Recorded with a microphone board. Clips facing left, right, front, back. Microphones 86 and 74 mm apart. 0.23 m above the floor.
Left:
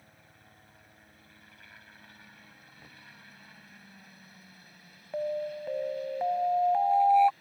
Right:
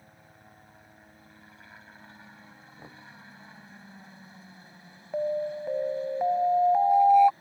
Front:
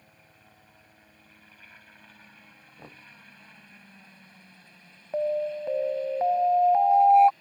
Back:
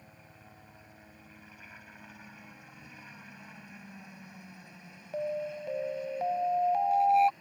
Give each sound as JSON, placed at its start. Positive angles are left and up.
{"t": 0.0, "sound": "a helicopter", "azimuth_deg": -115}
{"t": 2.8, "sound": "knocking", "azimuth_deg": -35}
{"t": 5.1, "sound": "an alarm", "azimuth_deg": -25}